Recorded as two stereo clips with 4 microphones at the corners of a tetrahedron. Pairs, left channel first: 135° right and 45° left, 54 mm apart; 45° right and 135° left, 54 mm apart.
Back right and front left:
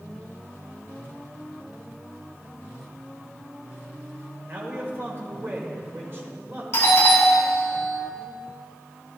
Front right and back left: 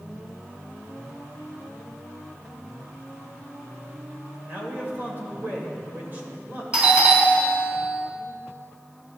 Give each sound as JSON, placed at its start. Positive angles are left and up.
{"t": 4.5, "sound": "a man speaking", "azimuth_deg": 85, "distance_m": 2.0}
{"t": 6.7, "sound": "a doorbell", "azimuth_deg": -170, "distance_m": 2.5}